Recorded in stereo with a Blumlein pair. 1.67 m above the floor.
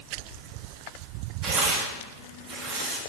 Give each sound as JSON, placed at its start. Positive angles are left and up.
{"t": 1.4, "sound": "tearing paper", "azimuth_deg": -25, "distance_m": 2.5}